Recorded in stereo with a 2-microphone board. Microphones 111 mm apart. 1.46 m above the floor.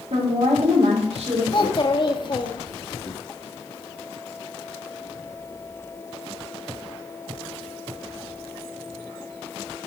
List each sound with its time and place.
0.1 s a woman speaking: 80° right, 3.5 m
1.5 s a child speaking: 45° left (ahead or behind), 1.5 m